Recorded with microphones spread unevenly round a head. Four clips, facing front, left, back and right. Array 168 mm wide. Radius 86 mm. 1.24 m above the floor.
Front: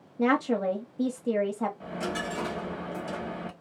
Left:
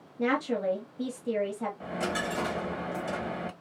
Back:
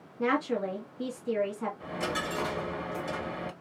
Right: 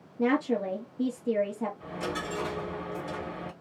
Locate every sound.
0.2 s a woman speaking: 5° right, 1.0 m
1.8 s a dropped coin: 75° left, 1.8 m